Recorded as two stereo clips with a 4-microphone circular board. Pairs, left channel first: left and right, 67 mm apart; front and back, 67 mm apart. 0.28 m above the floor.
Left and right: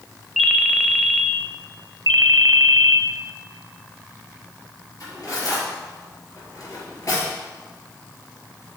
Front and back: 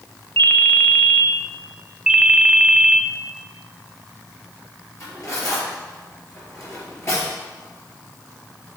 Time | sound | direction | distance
0.4 | a ringtone | 10° right | 0.5 m
2.1 | a ringtone | 100° right | 0.6 m
5.0 | cutlery clinking | 45° left | 4 m